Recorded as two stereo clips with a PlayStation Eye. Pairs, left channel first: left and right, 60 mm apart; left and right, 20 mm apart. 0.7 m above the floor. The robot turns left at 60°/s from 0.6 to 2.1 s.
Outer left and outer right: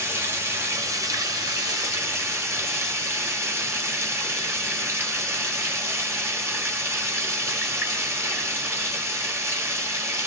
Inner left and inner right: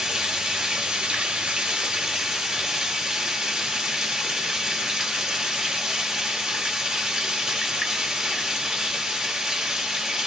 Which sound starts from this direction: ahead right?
Running water, at 0.0 s.